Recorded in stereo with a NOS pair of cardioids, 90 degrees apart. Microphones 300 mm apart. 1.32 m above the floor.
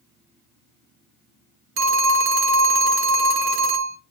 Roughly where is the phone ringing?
Ahead right.